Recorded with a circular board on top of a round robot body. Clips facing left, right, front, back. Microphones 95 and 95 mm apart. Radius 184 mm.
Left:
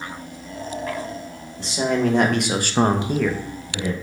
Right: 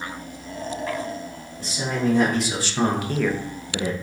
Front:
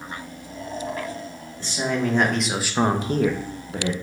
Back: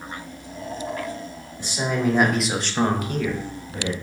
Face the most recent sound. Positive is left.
turn(degrees=-45)